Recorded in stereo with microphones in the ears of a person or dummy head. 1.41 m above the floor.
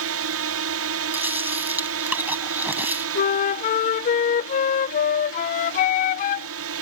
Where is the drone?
70° right (ahead or behind).